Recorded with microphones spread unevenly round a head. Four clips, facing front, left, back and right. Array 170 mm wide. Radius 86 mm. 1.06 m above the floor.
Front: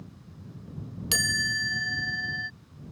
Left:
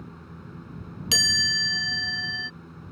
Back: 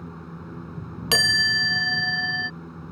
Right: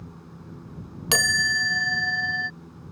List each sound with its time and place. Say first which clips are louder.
0.0 s a fan: left 1 dB, back 9 dB; 175° right
1.1 s a chime: right 6 dB, back 6 dB; 135° right